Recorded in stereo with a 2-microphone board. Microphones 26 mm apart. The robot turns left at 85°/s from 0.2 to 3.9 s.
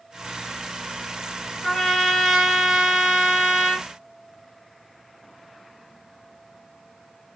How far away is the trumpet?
About 1.8 m.